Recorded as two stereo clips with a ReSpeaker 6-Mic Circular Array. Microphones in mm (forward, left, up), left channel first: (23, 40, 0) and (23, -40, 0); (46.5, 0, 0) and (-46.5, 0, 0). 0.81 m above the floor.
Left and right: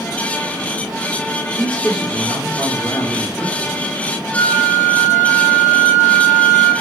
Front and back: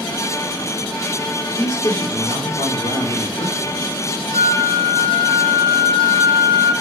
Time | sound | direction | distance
1.5 | a man speaking | straight ahead | 2 m
4.3 | a flute | 20° left | 2.5 m